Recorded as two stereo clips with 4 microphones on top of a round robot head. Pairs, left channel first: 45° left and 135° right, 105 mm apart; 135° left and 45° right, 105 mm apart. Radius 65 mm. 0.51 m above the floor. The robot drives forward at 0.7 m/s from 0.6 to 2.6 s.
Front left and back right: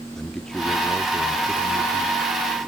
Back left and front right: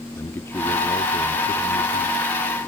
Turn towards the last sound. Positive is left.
turn(degrees=170)